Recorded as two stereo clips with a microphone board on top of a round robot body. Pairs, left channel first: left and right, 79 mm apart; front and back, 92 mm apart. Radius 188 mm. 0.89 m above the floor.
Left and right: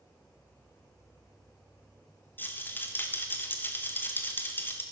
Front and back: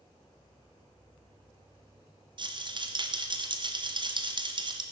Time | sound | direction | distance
2.4 | a rattle | 155° left | 1.5 m